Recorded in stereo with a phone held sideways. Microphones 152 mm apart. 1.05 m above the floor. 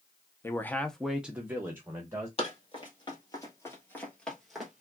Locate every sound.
0.4 s a man speaking: 15° left (ahead or behind), 0.6 m; by 2.3 s 20° right (ahead or behind), 1.2 m
2.4 s running footsteps: 40° left (ahead or behind), 1.6 m; by 4.8 s 5° right (ahead or behind), 1.4 m